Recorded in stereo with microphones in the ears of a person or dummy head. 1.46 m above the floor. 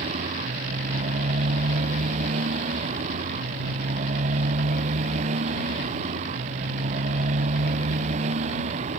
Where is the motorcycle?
45° right (ahead or behind).